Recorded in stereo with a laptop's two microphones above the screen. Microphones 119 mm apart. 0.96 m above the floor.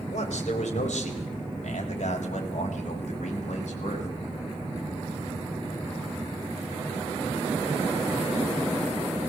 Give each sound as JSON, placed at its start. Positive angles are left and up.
{"t": 0.1, "sound": "a man speaking", "side_deg": 75, "distance_m": 4.5}